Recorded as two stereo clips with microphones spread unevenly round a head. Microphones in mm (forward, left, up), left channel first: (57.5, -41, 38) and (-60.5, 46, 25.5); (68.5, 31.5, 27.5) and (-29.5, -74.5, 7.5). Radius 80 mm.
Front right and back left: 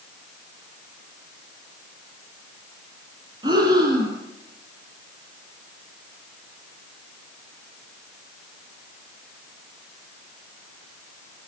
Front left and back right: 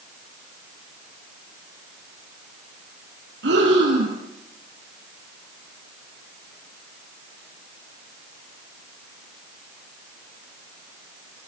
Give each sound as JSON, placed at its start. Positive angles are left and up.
{"t": 3.4, "sound": "breathing", "azimuth_deg": -150, "distance_m": 6.5}